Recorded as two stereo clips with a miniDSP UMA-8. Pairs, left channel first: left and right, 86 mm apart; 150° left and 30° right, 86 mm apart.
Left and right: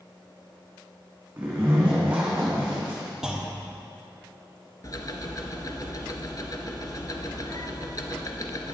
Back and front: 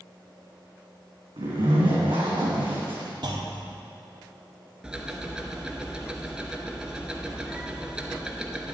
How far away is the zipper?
About 3 m.